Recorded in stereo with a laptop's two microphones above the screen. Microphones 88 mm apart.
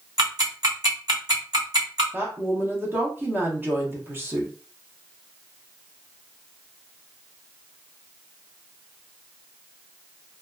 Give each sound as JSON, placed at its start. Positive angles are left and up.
{"t": 0.2, "sound": "ticking", "side_deg": -50, "distance_m": 1.3}
{"t": 2.1, "sound": "a woman speaking", "side_deg": -25, "distance_m": 0.7}